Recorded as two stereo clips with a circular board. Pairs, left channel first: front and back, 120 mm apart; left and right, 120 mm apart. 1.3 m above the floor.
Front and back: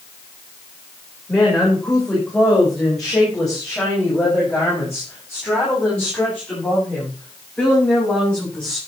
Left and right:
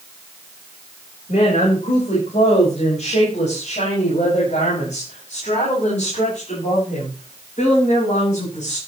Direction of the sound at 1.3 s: 85° left.